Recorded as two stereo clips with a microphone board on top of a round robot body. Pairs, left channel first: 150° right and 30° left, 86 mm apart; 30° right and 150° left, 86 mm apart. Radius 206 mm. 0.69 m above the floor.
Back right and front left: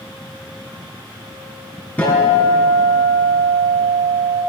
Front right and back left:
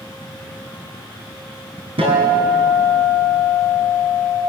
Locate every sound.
2.0 s a guitar: 135° left, 4 m